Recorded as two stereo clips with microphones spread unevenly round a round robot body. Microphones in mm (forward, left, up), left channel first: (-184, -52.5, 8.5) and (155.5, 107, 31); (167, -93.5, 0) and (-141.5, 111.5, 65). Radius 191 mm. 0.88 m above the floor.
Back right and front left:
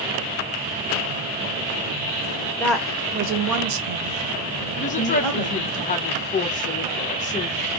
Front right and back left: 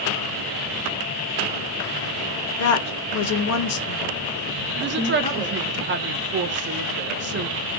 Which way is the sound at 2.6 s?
75° right.